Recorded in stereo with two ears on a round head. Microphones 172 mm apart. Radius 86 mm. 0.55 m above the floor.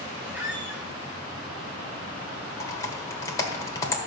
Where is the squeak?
10° right (ahead or behind), 1.8 m.